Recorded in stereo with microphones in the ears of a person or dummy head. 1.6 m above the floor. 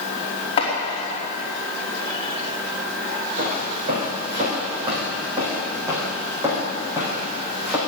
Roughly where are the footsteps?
Right.